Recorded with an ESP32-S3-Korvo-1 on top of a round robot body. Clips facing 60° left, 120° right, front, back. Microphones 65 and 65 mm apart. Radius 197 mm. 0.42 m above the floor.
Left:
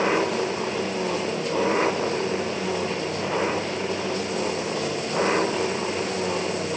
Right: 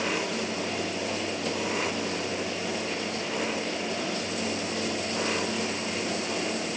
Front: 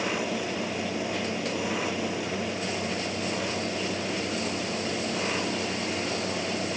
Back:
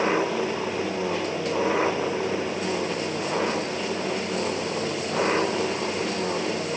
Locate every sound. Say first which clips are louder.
0.0 s an engine running: left 7 dB, back 6 dB; 120° left